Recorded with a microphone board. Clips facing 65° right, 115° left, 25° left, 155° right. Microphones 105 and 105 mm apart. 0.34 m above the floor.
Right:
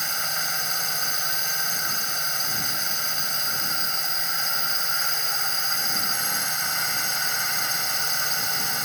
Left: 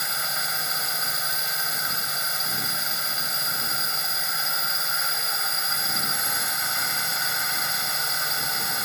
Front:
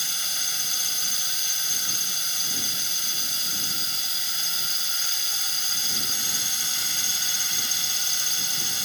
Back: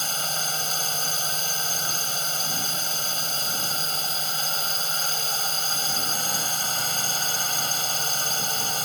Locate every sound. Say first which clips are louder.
0.0 s a drone: even, back 8 dB; 160° right